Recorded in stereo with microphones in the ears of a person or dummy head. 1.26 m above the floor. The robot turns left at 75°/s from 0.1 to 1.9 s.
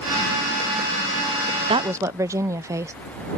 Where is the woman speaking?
30° right (ahead or behind); by 2.9 s 15° right (ahead or behind).